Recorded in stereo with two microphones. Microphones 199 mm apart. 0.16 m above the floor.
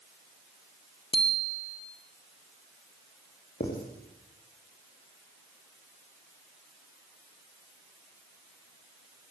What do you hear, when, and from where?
1.1 s a bicycle bell: 25° left (ahead or behind), 3 m
3.6 s writing: 50° left (ahead or behind), 8 m